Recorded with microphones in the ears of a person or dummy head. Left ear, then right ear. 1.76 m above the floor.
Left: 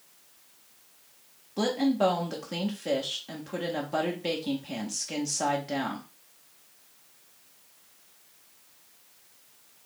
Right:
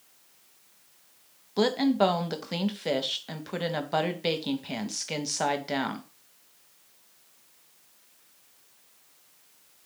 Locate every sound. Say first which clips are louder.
1.6 s a woman speaking: right 2 dB; 30° right (ahead or behind), 0.7 m